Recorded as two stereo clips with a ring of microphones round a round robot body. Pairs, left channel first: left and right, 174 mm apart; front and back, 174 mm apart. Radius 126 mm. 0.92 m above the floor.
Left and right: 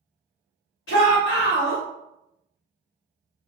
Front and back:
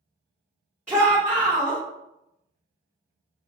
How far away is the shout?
About 1.3 m.